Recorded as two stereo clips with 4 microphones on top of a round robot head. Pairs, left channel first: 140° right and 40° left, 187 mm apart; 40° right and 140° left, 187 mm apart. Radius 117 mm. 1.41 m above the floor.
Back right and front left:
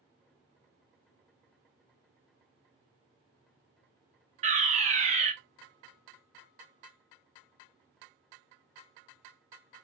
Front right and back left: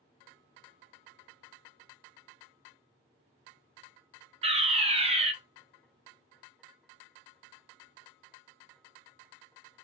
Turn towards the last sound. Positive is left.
turn(degrees=85)